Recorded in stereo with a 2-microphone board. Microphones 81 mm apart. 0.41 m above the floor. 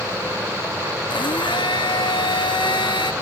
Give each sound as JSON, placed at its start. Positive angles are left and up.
{"t": 1.1, "sound": "a blender", "side_deg": 75, "distance_m": 1.0}